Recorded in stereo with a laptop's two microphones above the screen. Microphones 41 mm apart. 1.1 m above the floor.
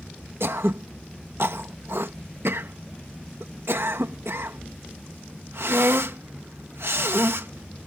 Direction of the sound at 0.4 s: 70° right (ahead or behind).